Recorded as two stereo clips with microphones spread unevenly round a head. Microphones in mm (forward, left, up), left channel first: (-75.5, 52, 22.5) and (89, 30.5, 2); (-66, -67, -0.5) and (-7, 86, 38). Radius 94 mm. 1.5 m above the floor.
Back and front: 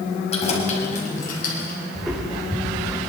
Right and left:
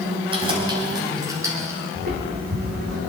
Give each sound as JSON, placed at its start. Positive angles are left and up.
{"t": 0.3, "sound": "keys jangling", "azimuth_deg": 125, "distance_m": 5.5}
{"t": 1.9, "sound": "footsteps", "azimuth_deg": 85, "distance_m": 4.0}